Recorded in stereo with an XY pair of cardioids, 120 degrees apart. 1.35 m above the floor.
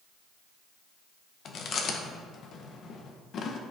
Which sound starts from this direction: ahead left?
Chewing, at 1.4 s.